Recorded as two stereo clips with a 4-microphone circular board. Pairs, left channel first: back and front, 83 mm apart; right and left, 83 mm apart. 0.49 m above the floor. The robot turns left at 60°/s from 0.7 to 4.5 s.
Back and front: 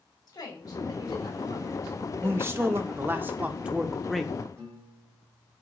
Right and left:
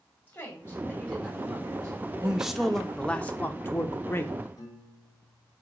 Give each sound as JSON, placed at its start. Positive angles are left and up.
{"t": 0.3, "sound": "a woman speaking", "azimuth_deg": -155, "distance_m": 3.0}
{"t": 2.2, "sound": "a man speaking", "azimuth_deg": 25, "distance_m": 0.7}
{"t": 4.6, "sound": "a piano", "azimuth_deg": -55, "distance_m": 2.5}